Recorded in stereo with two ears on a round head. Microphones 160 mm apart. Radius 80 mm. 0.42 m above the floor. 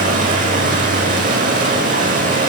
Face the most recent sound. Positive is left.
turn(degrees=-45)  # may be behind; listen again after turning